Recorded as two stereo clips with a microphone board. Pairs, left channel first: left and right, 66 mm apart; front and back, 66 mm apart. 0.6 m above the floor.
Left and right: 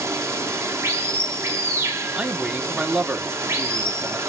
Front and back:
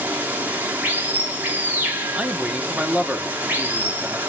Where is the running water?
120° right, 1.1 m.